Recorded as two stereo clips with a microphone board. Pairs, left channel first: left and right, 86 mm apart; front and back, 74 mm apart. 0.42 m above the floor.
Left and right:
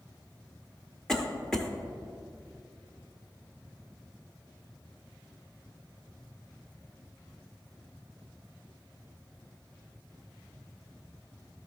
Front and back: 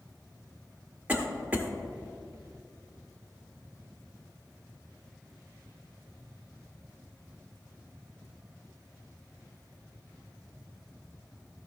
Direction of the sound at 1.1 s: 160° left.